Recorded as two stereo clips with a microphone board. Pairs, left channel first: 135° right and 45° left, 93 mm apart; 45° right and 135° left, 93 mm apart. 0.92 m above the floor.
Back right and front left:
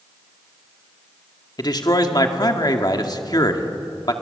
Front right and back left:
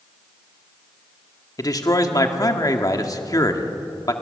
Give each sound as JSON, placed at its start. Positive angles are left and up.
{"t": 1.6, "sound": "a man speaking", "azimuth_deg": -95, "distance_m": 1.8}